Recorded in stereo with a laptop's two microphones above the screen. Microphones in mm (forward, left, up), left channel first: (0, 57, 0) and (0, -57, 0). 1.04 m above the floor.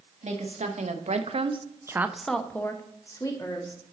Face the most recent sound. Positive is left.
turn(degrees=35)  # may be behind; listen again after turning